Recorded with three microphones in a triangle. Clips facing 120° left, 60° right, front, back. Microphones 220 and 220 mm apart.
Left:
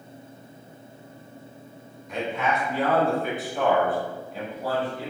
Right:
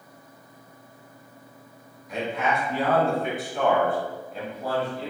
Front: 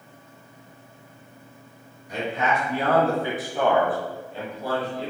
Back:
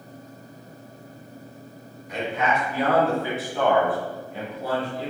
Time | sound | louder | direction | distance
2.1 | a man speaking | even, even | 30° left | 1.5 m